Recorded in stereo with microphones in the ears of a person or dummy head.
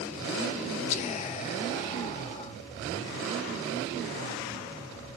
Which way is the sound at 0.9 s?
40° left (ahead or behind).